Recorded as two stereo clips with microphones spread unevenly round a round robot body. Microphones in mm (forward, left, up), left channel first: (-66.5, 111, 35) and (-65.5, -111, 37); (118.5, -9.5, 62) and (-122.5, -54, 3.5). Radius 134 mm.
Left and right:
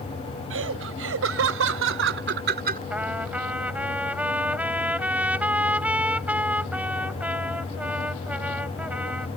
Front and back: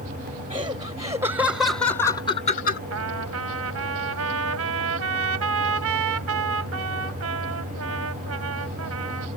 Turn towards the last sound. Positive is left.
turn(degrees=-175)